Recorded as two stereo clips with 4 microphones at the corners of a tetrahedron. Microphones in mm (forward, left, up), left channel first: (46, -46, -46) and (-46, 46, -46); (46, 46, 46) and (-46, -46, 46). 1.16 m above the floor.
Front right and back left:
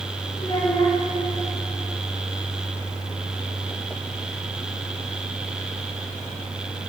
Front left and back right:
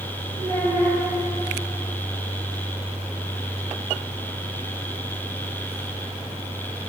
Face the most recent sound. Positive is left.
turn(degrees=-90)